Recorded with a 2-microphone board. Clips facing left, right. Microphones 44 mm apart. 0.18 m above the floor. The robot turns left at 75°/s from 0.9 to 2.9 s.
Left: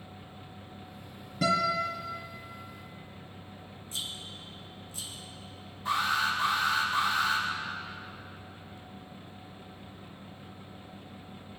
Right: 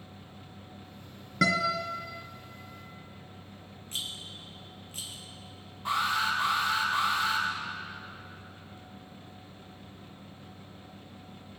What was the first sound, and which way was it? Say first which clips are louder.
A guitar: even; 80° right.